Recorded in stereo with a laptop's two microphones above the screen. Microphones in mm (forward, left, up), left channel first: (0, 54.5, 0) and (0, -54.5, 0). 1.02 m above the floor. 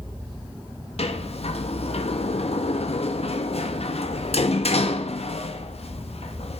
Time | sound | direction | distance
1.0 | a sliding door | 70° left (ahead or behind) | 1.0 m